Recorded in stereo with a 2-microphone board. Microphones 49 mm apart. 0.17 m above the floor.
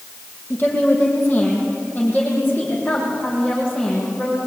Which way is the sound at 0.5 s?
45° left (ahead or behind).